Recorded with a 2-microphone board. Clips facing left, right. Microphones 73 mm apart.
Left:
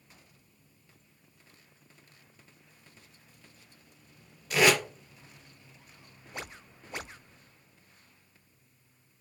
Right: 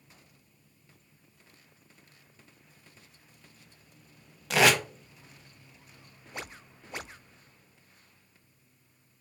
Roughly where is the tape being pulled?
Right.